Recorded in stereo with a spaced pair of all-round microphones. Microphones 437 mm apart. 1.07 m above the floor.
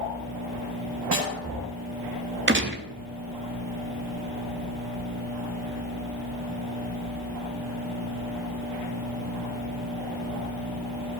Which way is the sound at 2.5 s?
25° right (ahead or behind).